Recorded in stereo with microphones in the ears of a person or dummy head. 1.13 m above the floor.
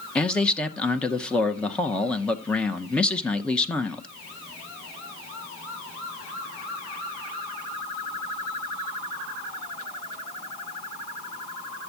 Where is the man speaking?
5° left (ahead or behind), 0.7 m.